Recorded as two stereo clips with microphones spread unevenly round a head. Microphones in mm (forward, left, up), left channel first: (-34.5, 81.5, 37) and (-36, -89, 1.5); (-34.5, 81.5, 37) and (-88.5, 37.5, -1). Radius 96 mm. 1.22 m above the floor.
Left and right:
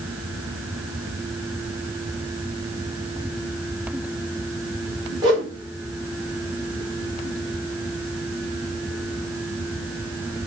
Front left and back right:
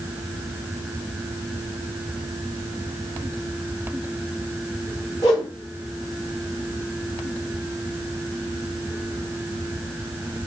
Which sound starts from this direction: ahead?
A whoosh, at 5.2 s.